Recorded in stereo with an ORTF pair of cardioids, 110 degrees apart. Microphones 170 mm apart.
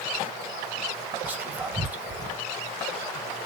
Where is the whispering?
10° right, 1.3 m.